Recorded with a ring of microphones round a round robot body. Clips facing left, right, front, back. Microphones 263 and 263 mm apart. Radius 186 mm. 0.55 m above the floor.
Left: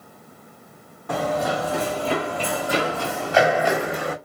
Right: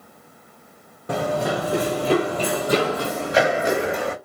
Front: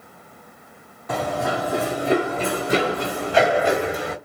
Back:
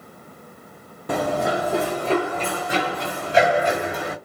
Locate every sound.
1.1 s running footsteps: 145° right, 0.7 m; by 4.2 s 35° right, 1.5 m